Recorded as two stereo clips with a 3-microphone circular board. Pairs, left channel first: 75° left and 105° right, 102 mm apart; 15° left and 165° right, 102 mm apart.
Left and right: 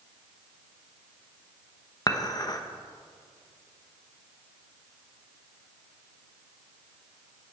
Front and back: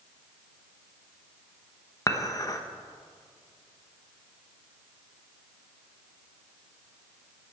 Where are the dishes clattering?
50° left, 1.0 m.